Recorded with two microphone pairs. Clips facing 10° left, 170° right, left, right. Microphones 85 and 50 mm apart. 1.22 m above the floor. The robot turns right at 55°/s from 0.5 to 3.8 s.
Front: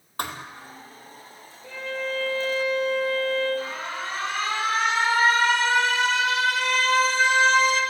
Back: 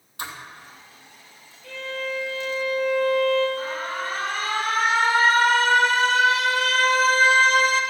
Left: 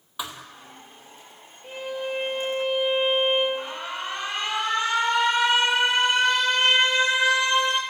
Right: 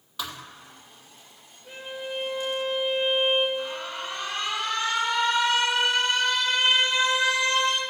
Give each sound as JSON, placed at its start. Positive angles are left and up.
{"t": 0.2, "sound": "a thud", "azimuth_deg": 20, "distance_m": 2.0}
{"t": 1.6, "sound": "a violin", "azimuth_deg": 80, "distance_m": 7.0}
{"t": 3.6, "sound": "an alarm", "azimuth_deg": 140, "distance_m": 4.5}